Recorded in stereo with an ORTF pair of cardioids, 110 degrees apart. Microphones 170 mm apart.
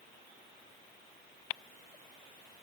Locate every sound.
Only background noise.